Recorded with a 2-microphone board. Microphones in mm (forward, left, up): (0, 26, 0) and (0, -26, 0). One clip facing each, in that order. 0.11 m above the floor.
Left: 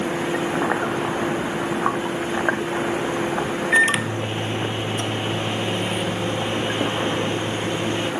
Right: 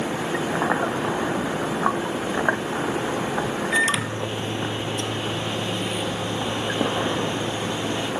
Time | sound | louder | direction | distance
3.7 | a microwave | left 5 dB | 30° left (ahead or behind) | 2.5 m